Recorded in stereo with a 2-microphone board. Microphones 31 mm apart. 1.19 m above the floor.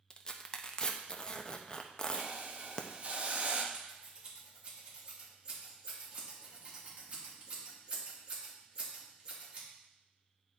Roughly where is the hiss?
Right.